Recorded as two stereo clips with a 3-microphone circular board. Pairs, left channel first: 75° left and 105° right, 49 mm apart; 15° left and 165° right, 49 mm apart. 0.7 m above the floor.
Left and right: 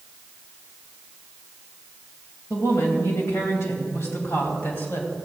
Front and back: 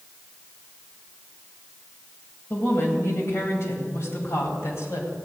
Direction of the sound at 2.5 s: 60° left.